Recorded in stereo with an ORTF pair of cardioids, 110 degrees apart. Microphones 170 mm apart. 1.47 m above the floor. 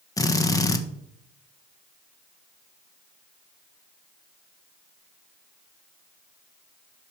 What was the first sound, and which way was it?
A drill, 20° left.